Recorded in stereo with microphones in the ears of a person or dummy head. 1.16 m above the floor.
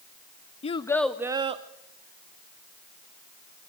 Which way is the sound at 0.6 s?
35° left (ahead or behind).